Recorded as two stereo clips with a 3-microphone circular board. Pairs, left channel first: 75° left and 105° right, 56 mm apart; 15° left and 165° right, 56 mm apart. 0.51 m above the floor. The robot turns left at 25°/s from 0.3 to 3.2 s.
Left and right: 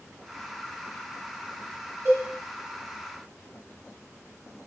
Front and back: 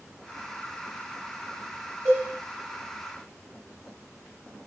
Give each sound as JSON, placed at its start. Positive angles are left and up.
{"t": 2.0, "sound": "a cowbell", "azimuth_deg": -140, "distance_m": 2.5}